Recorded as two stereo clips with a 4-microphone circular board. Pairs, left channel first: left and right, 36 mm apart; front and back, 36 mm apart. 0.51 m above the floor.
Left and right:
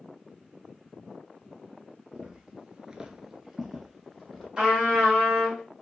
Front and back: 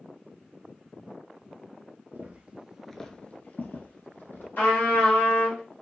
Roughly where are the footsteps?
Behind right.